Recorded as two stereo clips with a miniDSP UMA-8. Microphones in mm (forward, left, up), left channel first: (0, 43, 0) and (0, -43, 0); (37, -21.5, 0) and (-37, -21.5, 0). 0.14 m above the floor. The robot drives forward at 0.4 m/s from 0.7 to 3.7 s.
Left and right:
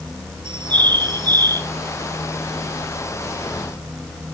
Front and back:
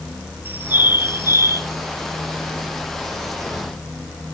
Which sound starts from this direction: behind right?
A bird, at 0.5 s.